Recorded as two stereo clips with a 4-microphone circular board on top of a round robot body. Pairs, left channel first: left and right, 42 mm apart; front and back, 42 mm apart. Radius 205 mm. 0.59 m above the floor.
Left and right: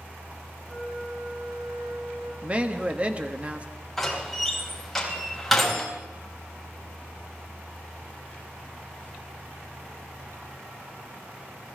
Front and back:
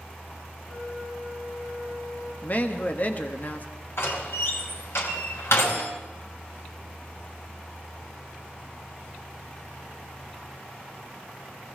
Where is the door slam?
5° left, 4.5 m.